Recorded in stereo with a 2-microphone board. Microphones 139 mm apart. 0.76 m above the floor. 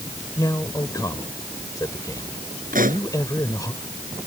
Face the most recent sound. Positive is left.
turn(degrees=-80)